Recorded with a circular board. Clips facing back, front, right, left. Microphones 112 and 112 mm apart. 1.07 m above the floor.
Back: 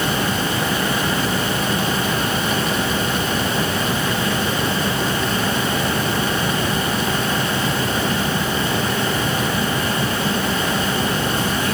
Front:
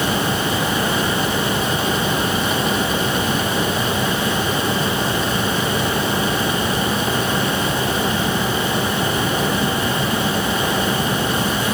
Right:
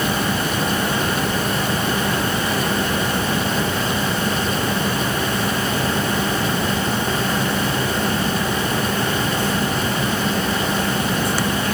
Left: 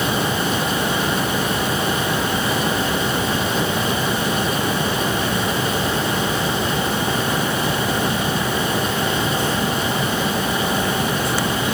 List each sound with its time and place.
Only background noise.